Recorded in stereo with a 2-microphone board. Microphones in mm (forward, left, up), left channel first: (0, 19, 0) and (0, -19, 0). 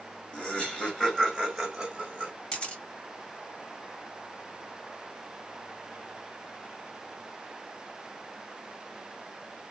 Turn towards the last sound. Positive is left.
turn(degrees=30)  # may be behind; listen again after turning